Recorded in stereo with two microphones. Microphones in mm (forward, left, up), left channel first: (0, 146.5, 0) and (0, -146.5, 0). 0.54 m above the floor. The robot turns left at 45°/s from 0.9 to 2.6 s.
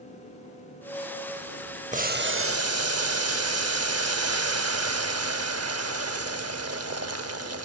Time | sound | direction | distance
1.9 | boiling | 25° right | 0.6 m